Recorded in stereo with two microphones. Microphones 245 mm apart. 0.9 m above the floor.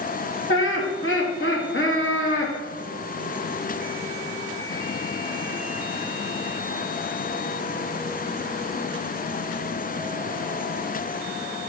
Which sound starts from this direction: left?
Laughter, at 0.5 s.